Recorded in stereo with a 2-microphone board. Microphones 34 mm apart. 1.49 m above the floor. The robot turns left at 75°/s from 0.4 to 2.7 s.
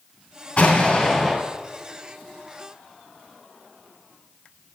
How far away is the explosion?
About 2.5 m.